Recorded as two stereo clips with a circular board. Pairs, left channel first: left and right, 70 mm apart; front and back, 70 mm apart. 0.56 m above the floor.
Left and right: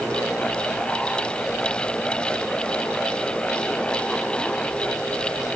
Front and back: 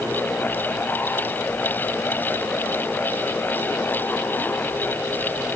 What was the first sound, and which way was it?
Only background noise.